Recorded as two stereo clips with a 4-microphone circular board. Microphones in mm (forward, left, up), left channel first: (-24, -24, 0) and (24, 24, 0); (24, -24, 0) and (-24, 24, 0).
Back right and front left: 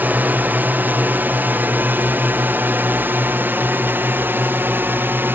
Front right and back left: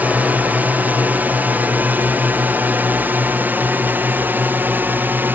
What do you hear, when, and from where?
0.0 s a drone: 85° left; by 5.3 s 90° left